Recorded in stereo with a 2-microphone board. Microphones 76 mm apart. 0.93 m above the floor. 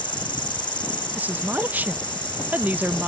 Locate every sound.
0.0 s an insect: 80° left
1.1 s a woman speaking: 20° right (ahead or behind)